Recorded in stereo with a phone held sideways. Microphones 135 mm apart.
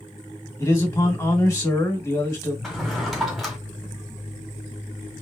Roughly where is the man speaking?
Left.